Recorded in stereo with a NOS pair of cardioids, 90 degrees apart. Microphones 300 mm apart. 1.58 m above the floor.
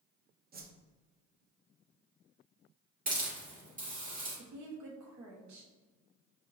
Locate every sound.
0.5 s a whoosh: 30° right, 0.7 m
3.1 s a hiss: 25° right, 1.7 m
4.4 s a woman speaking: 70° right, 1.4 m